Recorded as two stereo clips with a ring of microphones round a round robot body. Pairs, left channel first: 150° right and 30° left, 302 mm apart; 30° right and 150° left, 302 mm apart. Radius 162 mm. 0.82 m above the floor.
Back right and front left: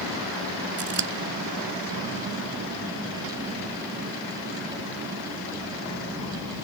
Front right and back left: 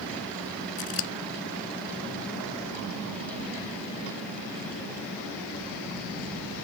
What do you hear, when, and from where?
0.8 s scissors: 25° right